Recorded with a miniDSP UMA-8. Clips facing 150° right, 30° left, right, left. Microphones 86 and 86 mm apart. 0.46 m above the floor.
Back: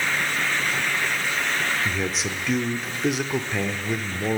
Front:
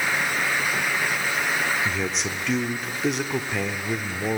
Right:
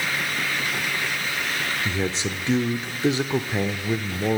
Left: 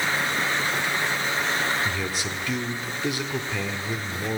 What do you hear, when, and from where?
1.9 s a man speaking: 60° right, 1.0 m